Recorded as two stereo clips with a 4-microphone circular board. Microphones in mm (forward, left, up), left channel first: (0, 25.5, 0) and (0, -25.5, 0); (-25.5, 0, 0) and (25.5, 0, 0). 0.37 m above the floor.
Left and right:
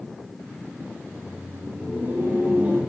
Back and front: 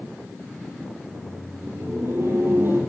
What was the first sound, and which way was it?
Laughter, 35° right.